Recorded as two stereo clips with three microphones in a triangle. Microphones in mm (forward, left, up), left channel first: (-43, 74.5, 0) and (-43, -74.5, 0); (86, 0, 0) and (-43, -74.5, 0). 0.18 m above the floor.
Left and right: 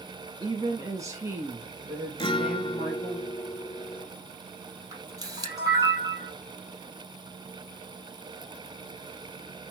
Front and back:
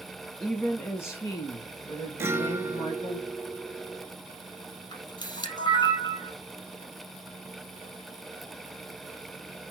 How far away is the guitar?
About 0.8 m.